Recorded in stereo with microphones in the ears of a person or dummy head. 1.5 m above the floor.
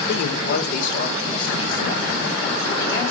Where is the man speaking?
65° left (ahead or behind), 1.2 m; by 3.1 s 15° left (ahead or behind), 2.5 m.